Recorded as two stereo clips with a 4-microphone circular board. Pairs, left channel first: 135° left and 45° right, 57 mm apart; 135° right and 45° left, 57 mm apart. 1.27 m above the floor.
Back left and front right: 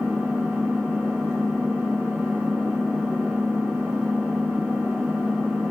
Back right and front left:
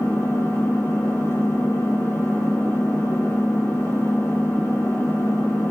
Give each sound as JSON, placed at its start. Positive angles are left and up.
{"t": 0.0, "sound": "an engine running", "azimuth_deg": -125, "distance_m": 4.5}